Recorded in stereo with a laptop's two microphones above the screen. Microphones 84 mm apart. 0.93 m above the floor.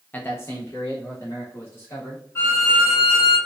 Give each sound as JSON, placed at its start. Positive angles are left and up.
{"t": 0.1, "sound": "a man speaking", "side_deg": 20, "distance_m": 0.6}
{"t": 2.4, "sound": "a violin", "side_deg": 25, "distance_m": 2.0}